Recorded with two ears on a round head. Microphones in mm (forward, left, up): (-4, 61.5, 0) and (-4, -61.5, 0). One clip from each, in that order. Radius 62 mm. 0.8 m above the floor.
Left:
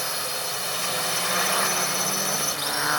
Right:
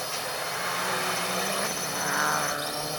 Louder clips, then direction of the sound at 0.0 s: Left 2 dB; 25° left (ahead or behind).